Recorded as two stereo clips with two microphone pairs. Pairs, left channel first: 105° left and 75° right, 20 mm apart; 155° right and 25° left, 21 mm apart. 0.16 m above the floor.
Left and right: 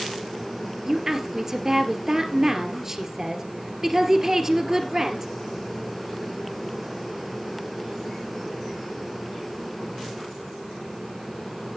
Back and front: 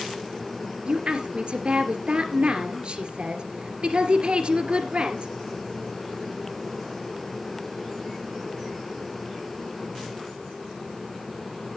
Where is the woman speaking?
10° right, 2.5 m.